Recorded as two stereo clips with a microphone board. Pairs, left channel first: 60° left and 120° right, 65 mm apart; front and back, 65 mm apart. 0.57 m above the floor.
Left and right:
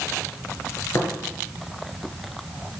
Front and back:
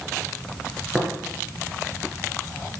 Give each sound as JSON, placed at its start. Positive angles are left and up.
{"t": 0.9, "sound": "tapping", "azimuth_deg": 100, "distance_m": 5.0}